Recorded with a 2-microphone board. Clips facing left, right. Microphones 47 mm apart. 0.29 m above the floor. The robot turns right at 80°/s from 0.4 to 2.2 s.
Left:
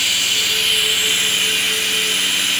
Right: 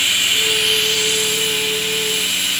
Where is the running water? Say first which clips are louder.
Right 2 dB; 20° right, 2.5 m; by 2.6 s 125° left, 2.5 m.